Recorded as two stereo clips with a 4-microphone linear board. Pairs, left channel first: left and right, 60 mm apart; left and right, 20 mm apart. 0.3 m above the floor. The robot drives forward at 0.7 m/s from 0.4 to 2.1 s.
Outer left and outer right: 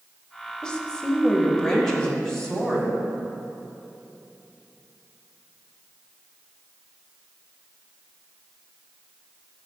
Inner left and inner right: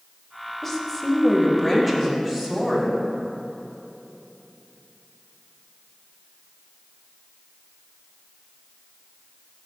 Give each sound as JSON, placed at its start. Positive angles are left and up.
{"t": 0.6, "sound": "a woman speaking", "side_deg": 15, "distance_m": 0.9}